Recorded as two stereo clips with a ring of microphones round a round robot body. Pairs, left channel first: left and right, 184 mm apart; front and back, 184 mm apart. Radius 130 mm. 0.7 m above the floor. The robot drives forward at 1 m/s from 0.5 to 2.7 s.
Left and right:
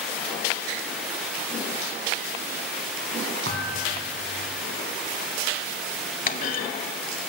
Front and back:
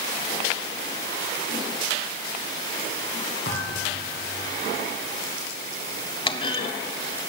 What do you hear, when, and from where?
3.5 s a thud: 50° right, 5.5 m
6.3 s a clunk: 55° left, 0.8 m